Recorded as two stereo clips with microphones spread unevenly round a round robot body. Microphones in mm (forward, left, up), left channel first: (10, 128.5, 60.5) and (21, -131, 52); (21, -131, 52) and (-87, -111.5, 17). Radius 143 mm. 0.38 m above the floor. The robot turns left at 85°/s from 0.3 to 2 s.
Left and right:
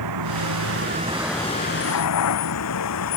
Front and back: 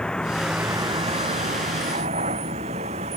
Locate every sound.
0.0 s a vehicle: 90° right; by 3.2 s 125° left